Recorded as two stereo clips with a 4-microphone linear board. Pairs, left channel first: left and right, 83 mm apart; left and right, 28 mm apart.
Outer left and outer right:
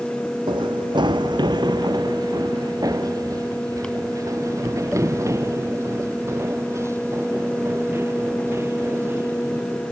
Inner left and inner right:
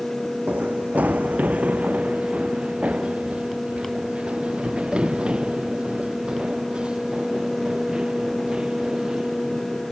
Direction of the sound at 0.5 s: 75° right (ahead or behind).